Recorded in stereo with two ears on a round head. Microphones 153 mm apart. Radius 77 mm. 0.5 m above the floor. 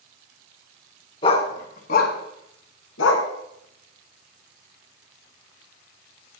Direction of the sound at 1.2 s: 30° left (ahead or behind).